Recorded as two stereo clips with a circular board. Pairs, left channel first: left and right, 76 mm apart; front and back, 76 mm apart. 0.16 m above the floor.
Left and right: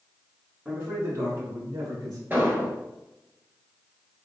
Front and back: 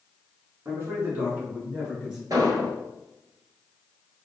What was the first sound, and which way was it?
A man speaking, 150° right.